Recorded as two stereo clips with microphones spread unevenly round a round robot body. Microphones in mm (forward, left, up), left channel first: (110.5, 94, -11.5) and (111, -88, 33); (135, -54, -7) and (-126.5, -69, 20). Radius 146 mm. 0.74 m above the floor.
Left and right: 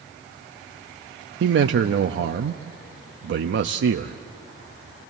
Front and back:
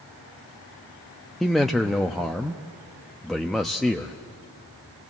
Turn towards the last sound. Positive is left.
turn(degrees=-80)